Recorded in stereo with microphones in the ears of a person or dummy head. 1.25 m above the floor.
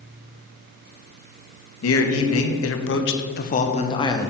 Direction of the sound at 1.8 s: 70° left (ahead or behind).